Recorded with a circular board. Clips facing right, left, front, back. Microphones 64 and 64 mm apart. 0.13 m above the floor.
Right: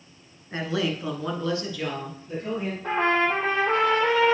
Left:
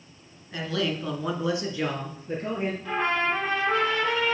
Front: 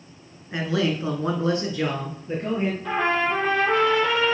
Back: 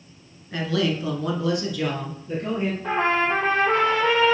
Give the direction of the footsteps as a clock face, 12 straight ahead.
No footsteps in this recording.